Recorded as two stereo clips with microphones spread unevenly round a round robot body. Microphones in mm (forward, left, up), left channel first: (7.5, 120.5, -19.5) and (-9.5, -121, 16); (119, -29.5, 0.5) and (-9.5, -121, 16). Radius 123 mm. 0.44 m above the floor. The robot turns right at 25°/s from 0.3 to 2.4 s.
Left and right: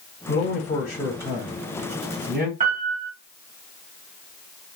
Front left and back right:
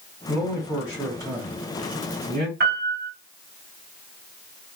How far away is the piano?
About 3 m.